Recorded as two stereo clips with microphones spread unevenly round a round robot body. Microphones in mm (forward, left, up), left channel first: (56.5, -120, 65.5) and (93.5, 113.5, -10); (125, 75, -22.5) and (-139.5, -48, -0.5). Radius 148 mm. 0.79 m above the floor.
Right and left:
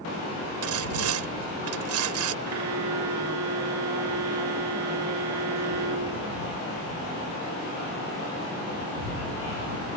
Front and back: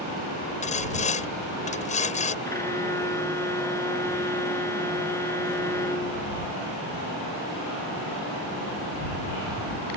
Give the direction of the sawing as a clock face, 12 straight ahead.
9 o'clock.